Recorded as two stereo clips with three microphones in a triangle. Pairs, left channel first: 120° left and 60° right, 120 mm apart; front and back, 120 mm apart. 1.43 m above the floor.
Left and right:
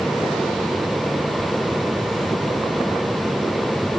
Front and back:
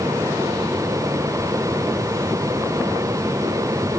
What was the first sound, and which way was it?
Only background noise.